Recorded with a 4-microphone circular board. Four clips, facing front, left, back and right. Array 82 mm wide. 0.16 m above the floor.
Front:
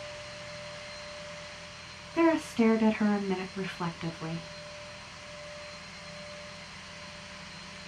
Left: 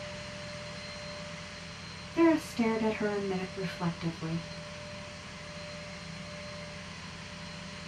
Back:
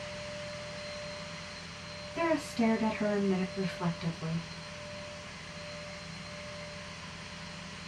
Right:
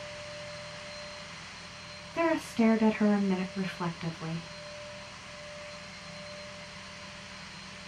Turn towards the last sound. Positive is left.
turn(degrees=-35)